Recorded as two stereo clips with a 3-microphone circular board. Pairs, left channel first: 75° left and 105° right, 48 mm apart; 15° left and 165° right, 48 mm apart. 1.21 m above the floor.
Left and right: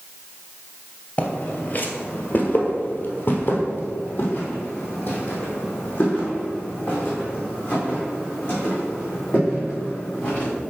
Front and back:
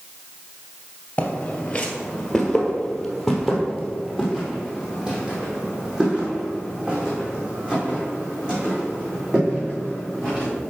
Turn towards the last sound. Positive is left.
turn(degrees=130)